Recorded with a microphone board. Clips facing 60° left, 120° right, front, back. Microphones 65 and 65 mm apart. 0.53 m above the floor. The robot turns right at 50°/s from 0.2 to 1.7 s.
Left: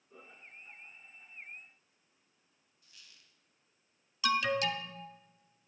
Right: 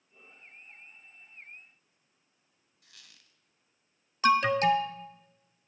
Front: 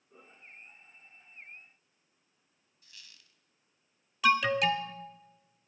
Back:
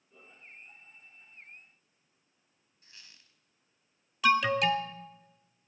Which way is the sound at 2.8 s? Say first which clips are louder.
Right 3 dB, even; 120° right.